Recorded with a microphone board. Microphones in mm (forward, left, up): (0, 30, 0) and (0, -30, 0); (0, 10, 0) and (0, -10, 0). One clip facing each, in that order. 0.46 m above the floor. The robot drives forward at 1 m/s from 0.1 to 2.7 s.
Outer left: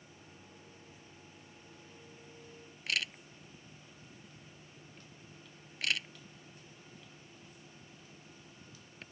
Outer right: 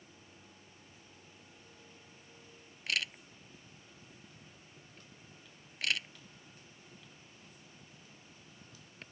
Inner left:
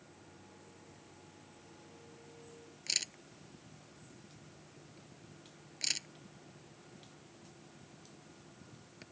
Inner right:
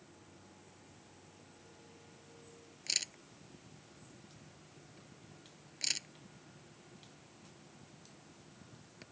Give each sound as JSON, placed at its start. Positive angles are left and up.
{"t": 2.9, "sound": "a camera shutter", "side_deg": 0}